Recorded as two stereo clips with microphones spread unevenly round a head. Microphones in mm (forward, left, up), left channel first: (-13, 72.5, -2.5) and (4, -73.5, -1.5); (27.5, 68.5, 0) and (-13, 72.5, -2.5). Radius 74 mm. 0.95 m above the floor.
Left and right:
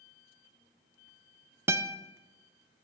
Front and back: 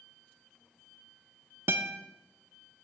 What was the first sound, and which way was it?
A guitar, 155° right.